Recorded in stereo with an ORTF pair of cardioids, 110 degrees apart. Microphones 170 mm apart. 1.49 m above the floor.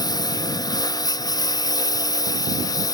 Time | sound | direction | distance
0.0 | a lawn mower | 25° left | ?